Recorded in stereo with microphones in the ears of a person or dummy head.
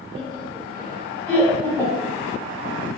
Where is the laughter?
20° right (ahead or behind), 1.6 m; by 2.1 s 20° left (ahead or behind), 1.1 m.